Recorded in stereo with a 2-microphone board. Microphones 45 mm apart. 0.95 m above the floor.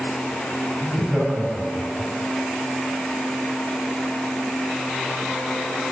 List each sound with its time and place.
0.8 s laughter: 45° right (ahead or behind), 7.5 m